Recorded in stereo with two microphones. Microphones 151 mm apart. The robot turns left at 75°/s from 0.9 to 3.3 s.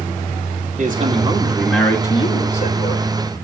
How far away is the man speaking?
About 2.5 m.